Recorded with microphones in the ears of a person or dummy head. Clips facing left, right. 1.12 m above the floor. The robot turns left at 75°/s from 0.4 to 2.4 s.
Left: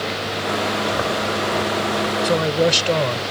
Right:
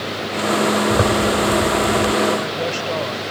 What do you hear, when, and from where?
0.9 s a zipper: 45° right; by 2.1 s 135° right
2.2 s a man speaking: 60° left (ahead or behind); by 3.2 s 50° left (ahead or behind)